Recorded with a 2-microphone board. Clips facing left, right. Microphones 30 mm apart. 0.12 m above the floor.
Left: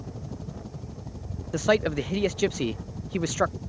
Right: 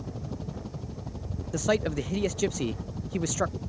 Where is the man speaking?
20° left (ahead or behind).